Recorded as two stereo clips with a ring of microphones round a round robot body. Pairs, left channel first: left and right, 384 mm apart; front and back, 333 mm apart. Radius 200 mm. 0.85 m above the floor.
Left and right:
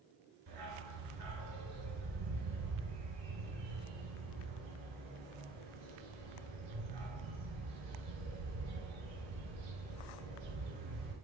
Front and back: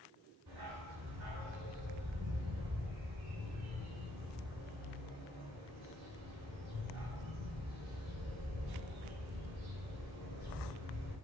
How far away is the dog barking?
About 3.5 m.